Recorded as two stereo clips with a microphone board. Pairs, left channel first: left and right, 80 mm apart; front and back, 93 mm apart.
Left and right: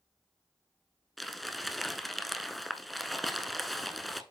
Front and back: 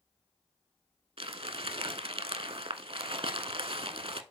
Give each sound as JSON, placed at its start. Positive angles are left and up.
{"t": 1.2, "sound": "crumpling", "azimuth_deg": 180, "distance_m": 0.7}